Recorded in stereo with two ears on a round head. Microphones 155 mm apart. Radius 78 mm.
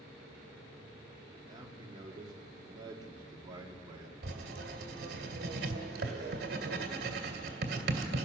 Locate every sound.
1.4 s a man speaking: 25° right (ahead or behind), 2 m
4.2 s writing: 60° right (ahead or behind), 2 m